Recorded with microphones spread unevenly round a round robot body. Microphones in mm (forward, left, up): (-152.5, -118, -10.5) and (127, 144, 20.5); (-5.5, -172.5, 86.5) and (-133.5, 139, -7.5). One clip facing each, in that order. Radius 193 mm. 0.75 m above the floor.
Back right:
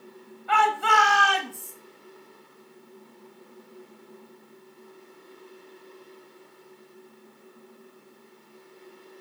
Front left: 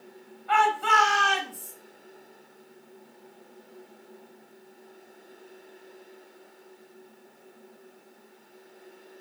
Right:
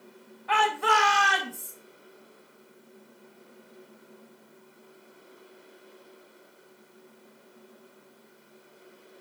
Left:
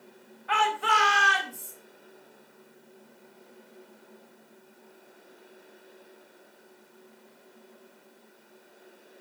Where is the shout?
110° right, 4.5 m; by 1.7 s 100° right, 5.5 m.